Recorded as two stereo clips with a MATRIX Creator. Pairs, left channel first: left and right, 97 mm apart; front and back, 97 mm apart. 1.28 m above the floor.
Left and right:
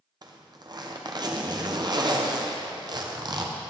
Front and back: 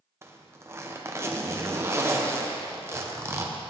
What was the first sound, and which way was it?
A zipper, 120° right.